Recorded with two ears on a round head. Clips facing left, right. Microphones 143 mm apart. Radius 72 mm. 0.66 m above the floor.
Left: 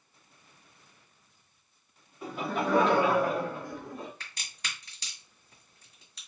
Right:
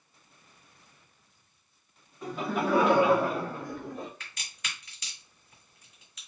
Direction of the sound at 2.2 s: 5° left (ahead or behind).